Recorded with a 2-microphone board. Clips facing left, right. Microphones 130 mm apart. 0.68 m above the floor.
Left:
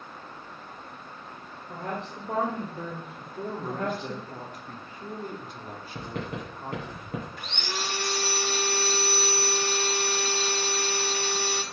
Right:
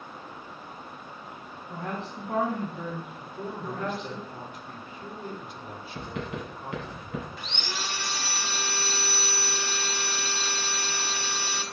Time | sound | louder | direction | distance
1.7 | a woman speaking | even | 45° left (ahead or behind) | 3 m
3.2 | a man speaking | left 2 dB | 45° left (ahead or behind) | 2 m
6.0 | writing | even | 40° left (ahead or behind) | 4 m
7.4 | sawing | left 2 dB | 50° left (ahead or behind) | 1.2 m